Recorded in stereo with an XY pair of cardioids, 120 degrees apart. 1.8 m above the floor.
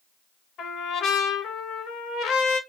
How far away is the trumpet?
About 0.9 m.